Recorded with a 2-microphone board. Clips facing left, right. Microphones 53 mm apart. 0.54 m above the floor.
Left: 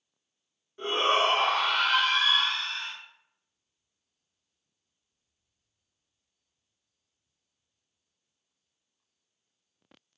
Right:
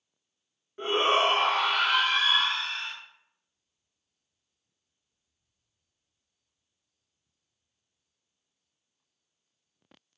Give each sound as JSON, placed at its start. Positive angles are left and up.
{"t": 0.8, "sound": "a shout", "side_deg": -25, "distance_m": 0.9}